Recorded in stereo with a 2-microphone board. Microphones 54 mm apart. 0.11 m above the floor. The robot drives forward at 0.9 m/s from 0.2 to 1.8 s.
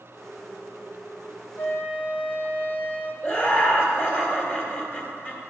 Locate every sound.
1.6 s a flute: 45° left (ahead or behind), 0.9 m; by 3.1 s 35° left (ahead or behind), 1.0 m
3.2 s laughter: 35° left (ahead or behind), 2.0 m